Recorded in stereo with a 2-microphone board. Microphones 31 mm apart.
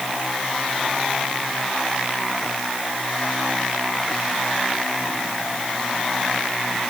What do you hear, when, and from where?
Only background noise.